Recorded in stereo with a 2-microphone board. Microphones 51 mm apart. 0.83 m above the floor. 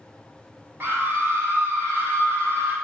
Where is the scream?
45° right (ahead or behind), 1.5 m; by 2.8 s 50° right (ahead or behind), 1.3 m.